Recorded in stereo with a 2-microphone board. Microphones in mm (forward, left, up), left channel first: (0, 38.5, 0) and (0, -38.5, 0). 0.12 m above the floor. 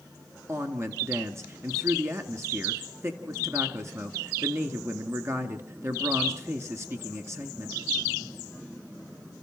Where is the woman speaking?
35° right (ahead or behind), 1.7 m.